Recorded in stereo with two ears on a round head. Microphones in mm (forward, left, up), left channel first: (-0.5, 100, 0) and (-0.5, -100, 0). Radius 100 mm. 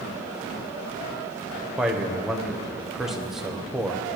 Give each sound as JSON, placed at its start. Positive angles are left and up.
{"t": 1.8, "sound": "a man speaking", "side_deg": 0, "distance_m": 1.2}